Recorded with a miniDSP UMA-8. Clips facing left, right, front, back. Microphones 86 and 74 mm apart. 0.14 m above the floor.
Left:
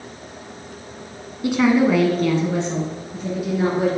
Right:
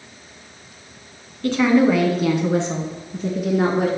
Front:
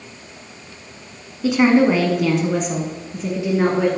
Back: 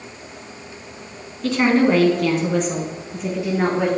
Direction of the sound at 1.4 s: 65° left.